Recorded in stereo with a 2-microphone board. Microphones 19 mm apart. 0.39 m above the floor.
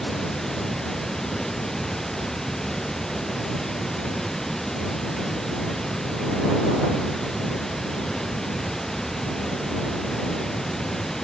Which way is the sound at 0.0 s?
20° left (ahead or behind).